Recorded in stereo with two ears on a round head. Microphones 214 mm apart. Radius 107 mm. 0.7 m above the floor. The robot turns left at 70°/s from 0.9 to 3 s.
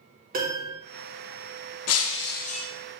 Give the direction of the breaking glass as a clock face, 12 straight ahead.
9 o'clock.